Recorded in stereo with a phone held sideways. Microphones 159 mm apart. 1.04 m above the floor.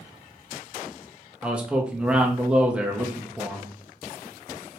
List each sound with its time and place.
1.4 s a man speaking: 10° right (ahead or behind), 0.8 m